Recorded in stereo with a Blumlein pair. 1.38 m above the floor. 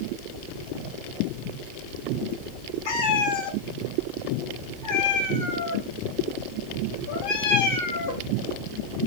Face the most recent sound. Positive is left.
turn(degrees=55)